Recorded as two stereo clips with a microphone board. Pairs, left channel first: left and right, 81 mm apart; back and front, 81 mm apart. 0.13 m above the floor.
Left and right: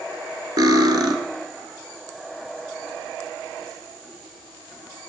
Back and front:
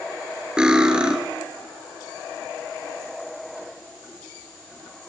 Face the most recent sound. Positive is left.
turn(degrees=-75)